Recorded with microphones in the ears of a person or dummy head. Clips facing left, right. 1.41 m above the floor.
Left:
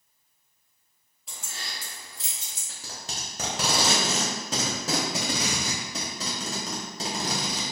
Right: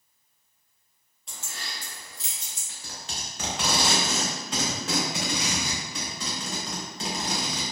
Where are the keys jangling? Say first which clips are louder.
Even; 5° left (ahead or behind), 0.5 m; by 2.6 s 65° left (ahead or behind), 1.6 m.